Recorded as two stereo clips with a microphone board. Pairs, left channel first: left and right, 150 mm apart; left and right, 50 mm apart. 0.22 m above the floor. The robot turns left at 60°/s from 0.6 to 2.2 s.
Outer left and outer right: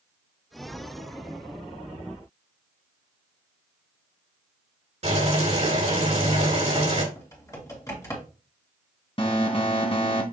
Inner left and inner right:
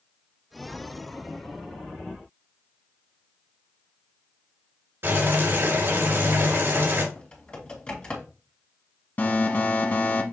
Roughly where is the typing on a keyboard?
Left.